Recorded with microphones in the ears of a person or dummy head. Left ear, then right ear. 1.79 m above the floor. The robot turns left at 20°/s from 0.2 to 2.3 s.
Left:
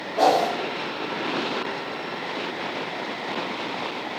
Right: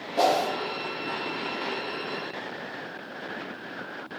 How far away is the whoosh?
About 0.9 m.